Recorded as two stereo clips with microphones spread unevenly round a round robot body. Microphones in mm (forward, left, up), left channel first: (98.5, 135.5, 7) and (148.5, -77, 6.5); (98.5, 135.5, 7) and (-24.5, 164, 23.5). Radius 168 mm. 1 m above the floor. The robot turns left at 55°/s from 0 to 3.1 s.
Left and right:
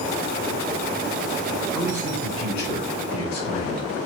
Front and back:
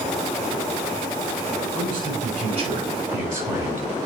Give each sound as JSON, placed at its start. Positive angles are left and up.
{"t": 1.8, "sound": "a man speaking", "azimuth_deg": -135, "distance_m": 6.0}